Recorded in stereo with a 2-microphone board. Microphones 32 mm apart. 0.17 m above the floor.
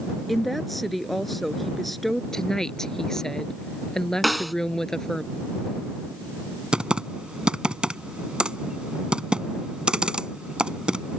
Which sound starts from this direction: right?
Typing on a keyboard, at 6.7 s.